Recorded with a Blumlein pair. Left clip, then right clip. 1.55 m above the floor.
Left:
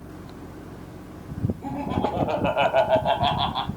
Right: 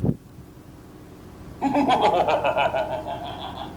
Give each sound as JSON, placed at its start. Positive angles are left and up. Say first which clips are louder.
{"t": 1.6, "sound": "laughter", "louder": "right 10 dB", "azimuth_deg": -50, "distance_m": 1.0}